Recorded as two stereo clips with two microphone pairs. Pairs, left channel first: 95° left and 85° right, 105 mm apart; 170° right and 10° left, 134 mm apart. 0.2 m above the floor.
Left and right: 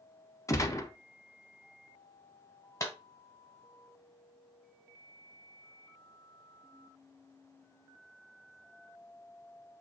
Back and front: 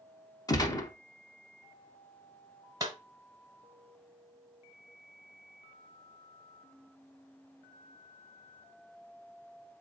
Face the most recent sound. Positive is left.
turn(degrees=55)